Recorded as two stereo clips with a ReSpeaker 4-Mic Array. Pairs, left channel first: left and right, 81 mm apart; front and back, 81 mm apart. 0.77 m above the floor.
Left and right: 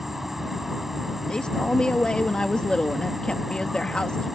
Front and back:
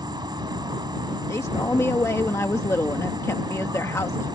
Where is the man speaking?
20° left.